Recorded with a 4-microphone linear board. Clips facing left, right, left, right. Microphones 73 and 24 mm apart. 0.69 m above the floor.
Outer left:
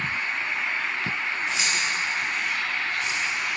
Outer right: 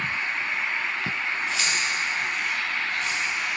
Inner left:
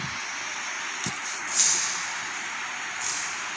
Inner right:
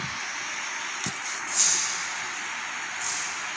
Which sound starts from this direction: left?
Keys jangling, at 1.5 s.